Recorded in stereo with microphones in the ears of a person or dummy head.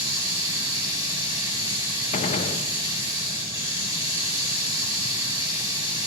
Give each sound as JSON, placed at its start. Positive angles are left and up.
{"t": 0.0, "sound": "running water", "side_deg": -20, "distance_m": 4.0}
{"t": 2.1, "sound": "a gunshot", "side_deg": 40, "distance_m": 0.7}